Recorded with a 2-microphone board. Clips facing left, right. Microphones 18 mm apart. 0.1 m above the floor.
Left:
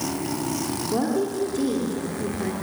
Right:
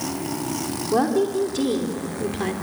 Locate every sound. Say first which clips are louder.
0.9 s a woman speaking: right 5 dB; 20° right (ahead or behind), 4 m